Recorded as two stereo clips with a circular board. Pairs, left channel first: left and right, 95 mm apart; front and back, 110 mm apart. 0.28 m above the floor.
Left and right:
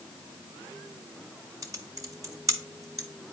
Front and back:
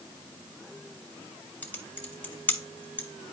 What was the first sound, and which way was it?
Typing on a keyboard, 70° right.